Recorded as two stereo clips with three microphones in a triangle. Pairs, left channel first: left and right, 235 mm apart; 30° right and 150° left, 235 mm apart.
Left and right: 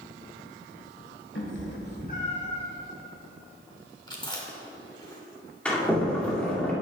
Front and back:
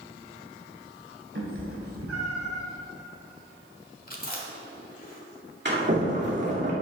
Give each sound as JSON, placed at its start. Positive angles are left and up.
{"t": 1.4, "sound": "a cat meowing", "azimuth_deg": 120, "distance_m": 1.6}
{"t": 4.1, "sound": "chewing", "azimuth_deg": 20, "distance_m": 1.4}
{"t": 5.7, "sound": "a sliding door", "azimuth_deg": 175, "distance_m": 2.0}